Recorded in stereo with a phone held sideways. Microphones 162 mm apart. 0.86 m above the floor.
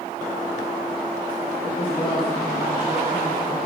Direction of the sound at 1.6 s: 35° left (ahead or behind).